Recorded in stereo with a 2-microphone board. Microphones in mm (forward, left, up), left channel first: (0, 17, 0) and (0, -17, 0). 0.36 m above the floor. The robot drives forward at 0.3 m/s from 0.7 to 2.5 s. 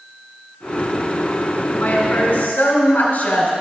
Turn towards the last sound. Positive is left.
turn(degrees=40)  # may be behind; listen again after turning